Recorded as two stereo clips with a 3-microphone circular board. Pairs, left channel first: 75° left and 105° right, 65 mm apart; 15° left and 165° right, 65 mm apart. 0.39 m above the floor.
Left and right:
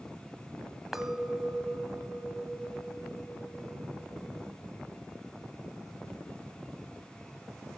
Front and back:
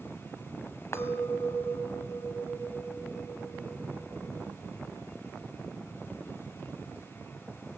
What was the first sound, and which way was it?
A clink, 20° right.